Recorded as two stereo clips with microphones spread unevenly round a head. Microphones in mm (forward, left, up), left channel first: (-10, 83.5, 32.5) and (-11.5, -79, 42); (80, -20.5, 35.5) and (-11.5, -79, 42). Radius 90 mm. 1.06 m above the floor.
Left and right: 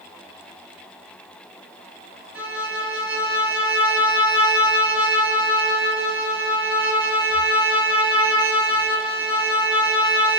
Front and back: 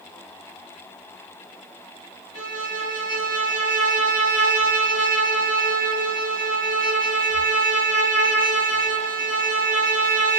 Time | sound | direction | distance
2.4 | a violin | 170° right | 1.1 m